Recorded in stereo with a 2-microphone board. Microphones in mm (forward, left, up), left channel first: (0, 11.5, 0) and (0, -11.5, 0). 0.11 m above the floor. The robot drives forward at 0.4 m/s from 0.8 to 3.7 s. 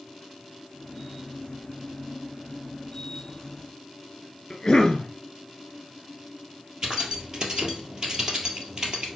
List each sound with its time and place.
4.5 s a cough: 30° left (ahead or behind), 2 m
6.8 s keys jangling: 40° right (ahead or behind), 1.7 m